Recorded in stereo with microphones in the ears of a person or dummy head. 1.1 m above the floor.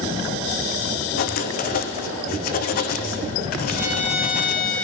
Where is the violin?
10° right (ahead or behind), 2.5 m.